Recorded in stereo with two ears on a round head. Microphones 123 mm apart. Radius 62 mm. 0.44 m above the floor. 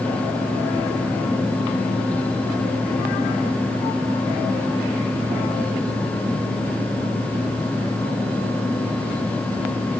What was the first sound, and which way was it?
Only background noise.